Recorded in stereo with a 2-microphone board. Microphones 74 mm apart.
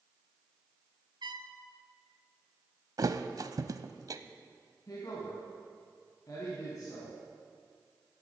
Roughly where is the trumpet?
Right.